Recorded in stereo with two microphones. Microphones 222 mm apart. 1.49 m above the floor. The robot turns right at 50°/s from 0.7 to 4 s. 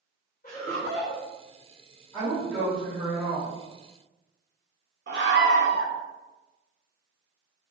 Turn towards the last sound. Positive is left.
turn(degrees=-55)  # may be behind; listen again after turning